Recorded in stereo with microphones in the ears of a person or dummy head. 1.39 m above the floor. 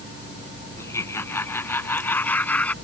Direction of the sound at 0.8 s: 15° left (ahead or behind).